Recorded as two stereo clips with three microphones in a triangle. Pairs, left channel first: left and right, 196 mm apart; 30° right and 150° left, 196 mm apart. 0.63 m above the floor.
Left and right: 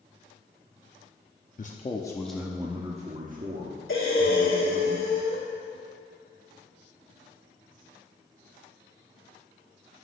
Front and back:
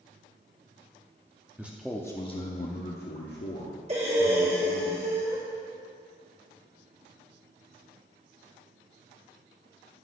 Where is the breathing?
95° left, 1.9 m.